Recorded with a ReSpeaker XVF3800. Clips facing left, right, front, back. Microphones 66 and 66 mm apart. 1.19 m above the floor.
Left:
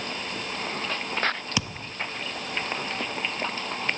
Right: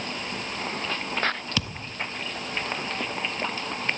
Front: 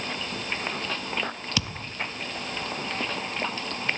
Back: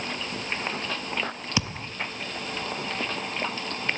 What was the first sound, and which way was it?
A thud, 150° left.